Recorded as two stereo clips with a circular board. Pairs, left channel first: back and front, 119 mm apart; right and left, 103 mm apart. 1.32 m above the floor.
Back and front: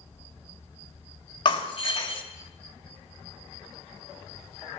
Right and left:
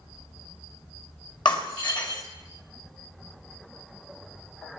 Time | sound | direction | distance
1.4 | breaking glass | 135° right | 1.8 m